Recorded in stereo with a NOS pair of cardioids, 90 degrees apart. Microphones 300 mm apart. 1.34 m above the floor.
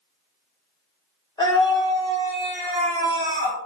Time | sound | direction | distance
1.4 | a scream | 15° left | 0.8 m